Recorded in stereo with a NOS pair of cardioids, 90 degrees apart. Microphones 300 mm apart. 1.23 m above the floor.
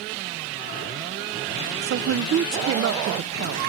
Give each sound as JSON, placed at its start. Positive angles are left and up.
{"t": 1.8, "sound": "a woman speaking", "azimuth_deg": -45, "distance_m": 0.6}